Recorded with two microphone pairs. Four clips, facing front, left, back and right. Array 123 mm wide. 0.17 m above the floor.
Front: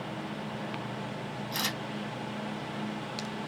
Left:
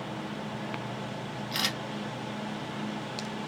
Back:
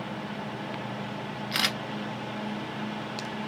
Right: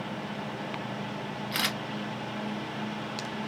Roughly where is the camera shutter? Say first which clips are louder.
Right 2 dB, back 4 dB; behind.